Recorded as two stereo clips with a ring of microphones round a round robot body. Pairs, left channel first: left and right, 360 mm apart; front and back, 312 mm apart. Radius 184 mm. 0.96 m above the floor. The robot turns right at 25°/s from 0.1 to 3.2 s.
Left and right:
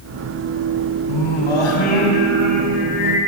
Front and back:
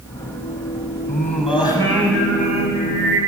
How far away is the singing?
About 6 m.